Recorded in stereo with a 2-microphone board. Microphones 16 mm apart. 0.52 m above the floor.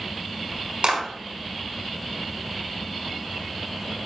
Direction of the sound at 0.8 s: 75° right (ahead or behind).